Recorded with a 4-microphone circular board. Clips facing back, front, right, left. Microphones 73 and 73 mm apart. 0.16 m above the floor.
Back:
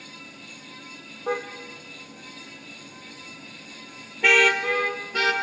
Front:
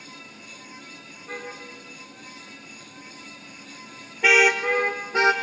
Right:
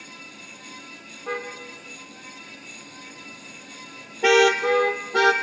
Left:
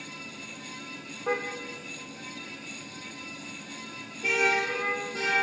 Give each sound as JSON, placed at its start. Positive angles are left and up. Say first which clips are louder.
{"t": 1.3, "sound": "a car horn", "louder": "back 8 dB, left 1 dB", "azimuth_deg": 170, "distance_m": 3.0}